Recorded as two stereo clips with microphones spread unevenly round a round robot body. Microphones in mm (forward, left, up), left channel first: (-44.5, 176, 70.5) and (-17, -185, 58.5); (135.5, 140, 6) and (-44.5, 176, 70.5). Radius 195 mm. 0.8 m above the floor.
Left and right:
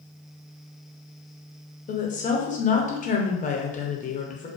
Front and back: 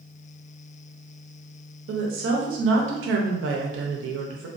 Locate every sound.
1.9 s a woman speaking: 165° left, 0.6 m